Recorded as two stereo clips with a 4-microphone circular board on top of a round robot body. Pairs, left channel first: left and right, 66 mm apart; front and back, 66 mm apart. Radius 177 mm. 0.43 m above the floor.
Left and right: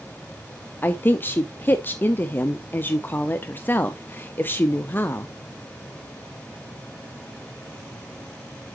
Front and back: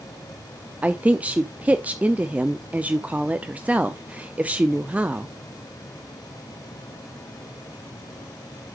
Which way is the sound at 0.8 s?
125° left.